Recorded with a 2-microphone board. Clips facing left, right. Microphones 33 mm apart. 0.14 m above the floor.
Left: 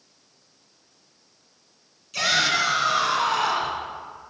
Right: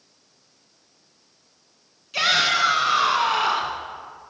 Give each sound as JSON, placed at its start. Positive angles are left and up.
{"t": 2.1, "sound": "a shout", "side_deg": -20, "distance_m": 1.2}